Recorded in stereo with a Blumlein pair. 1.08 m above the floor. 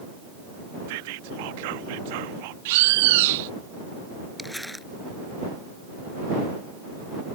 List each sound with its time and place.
0.9 s whispering: 50° right
2.6 s a bird: 50° right
4.4 s crumpling: 5° left